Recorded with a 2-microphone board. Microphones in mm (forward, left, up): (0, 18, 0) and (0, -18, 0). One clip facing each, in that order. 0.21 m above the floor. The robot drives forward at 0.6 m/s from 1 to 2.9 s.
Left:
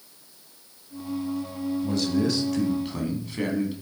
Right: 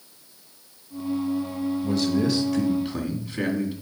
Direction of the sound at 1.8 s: 5° right (ahead or behind).